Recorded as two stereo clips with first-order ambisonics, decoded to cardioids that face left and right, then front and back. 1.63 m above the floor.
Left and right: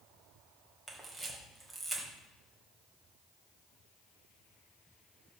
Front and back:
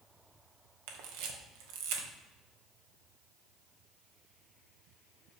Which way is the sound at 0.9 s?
175° right.